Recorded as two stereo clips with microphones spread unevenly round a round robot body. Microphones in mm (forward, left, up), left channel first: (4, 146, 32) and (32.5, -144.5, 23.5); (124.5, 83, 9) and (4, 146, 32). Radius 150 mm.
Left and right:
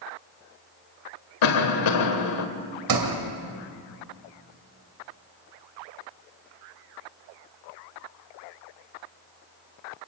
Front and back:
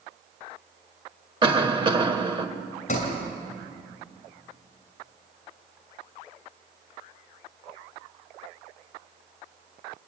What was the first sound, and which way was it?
A cough, 95° left.